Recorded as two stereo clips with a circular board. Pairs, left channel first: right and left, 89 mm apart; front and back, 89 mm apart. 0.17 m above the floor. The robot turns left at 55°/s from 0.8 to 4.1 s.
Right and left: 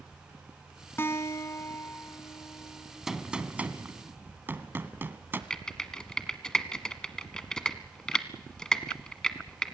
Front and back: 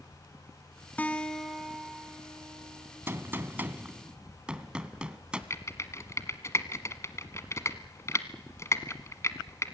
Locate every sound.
1.0 s a guitar: 55° right, 1.8 m; by 3.0 s 165° right, 1.8 m
3.1 s a gunshot: 175° left, 1.4 m; by 5.4 s 115° left, 1.4 m
5.5 s typing on a keyboard: 10° right, 1.3 m